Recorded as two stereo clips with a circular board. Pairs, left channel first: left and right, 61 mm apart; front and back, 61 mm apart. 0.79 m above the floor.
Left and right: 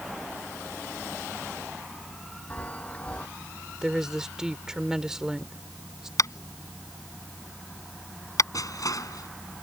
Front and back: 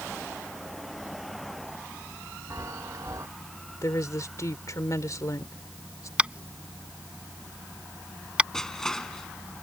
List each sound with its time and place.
2.5 s a chime: 155° left
3.8 s a woman speaking: 10° right
6.2 s tapping: 110° left
8.5 s crushing: 80° left